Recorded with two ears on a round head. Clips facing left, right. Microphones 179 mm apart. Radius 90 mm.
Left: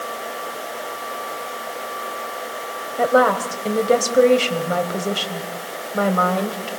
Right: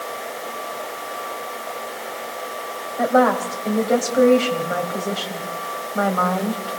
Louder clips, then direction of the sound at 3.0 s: Even; 40° left (ahead or behind).